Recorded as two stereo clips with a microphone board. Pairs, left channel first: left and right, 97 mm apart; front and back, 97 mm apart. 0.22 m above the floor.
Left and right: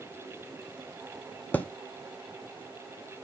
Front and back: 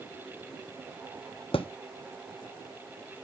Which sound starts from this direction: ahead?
A thud, at 1.5 s.